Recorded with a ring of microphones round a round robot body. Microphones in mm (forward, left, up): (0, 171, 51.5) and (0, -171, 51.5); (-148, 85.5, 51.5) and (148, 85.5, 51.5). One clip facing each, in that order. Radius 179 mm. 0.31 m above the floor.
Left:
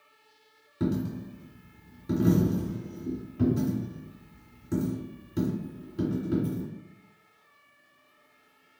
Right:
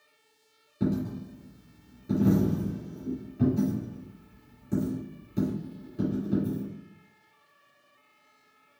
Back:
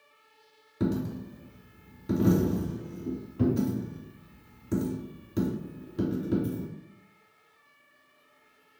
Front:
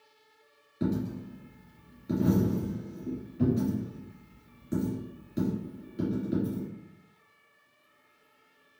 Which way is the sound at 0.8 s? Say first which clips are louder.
Even, back 1 dB; 165° left.